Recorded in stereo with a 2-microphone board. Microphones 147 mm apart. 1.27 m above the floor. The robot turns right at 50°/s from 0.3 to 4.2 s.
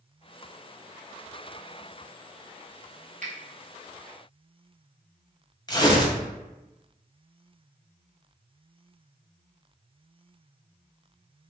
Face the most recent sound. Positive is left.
turn(degrees=30)  # may be behind; listen again after turning